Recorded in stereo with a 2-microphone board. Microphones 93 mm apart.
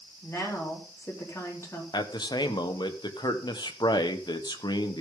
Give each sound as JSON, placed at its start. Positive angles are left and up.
{"t": 0.2, "sound": "a woman speaking", "side_deg": 30, "distance_m": 4.0}
{"t": 1.9, "sound": "a man speaking", "side_deg": 50, "distance_m": 1.4}